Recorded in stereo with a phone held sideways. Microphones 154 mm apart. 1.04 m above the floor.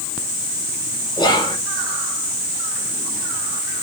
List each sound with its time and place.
1.2 s whispering: 30° left (ahead or behind), 1.0 m